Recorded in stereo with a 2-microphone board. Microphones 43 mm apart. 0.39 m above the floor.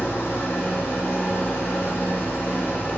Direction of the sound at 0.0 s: 60° left (ahead or behind).